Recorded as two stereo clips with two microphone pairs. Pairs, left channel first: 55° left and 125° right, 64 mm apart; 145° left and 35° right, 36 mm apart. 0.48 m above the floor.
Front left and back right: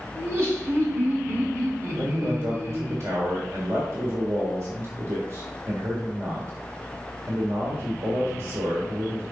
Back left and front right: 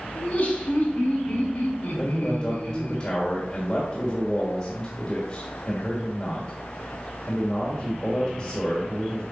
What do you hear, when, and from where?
0.1 s laughter: 175° right, 3 m
2.0 s a man speaking: 155° right, 1.7 m